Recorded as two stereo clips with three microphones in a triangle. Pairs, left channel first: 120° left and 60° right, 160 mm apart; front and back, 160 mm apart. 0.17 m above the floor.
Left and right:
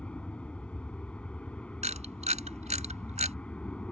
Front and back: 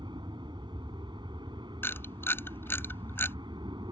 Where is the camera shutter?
70° right.